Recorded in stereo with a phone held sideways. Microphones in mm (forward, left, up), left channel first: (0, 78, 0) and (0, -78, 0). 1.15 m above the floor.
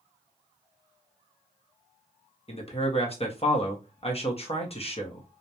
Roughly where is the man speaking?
Left.